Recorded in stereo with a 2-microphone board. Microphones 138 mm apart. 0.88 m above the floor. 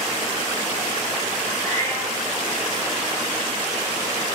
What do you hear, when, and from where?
1.6 s a cat meowing: 25° left (ahead or behind), 4 m